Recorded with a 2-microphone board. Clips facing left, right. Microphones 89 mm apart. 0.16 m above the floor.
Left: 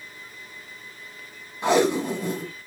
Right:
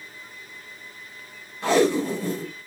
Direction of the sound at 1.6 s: 20° left (ahead or behind).